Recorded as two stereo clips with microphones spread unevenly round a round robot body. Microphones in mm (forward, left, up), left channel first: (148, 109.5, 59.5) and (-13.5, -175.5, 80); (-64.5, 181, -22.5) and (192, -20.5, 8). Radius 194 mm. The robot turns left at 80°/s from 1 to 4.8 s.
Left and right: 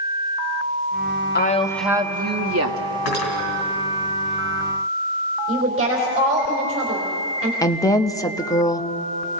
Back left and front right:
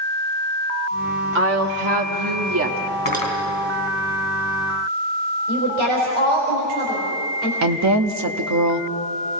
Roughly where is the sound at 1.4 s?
Ahead.